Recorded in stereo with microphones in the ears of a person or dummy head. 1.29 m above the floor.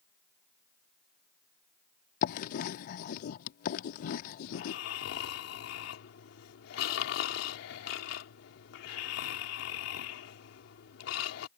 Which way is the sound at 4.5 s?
65° left (ahead or behind).